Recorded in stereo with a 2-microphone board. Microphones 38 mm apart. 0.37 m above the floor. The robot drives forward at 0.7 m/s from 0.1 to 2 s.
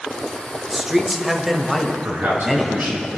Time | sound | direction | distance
0.7 | a man speaking | 15° right (ahead or behind) | 1.0 m
2.0 | a man speaking | 70° right (ahead or behind) | 5 m